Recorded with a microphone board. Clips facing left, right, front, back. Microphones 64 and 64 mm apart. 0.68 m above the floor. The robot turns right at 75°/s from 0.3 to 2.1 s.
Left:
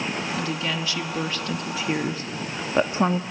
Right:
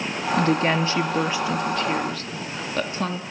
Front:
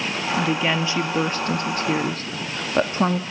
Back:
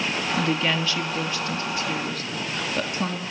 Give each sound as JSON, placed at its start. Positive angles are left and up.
{"t": 0.4, "sound": "a woman speaking", "azimuth_deg": -95, "distance_m": 0.9}